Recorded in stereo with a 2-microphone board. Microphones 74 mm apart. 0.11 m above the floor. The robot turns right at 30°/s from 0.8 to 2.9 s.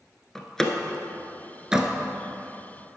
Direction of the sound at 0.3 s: 10° left (ahead or behind).